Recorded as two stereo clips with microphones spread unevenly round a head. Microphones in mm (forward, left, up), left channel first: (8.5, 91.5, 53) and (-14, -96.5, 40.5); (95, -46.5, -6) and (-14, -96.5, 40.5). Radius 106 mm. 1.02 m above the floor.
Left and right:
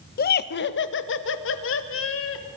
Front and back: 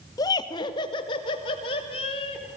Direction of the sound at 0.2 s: 55° left.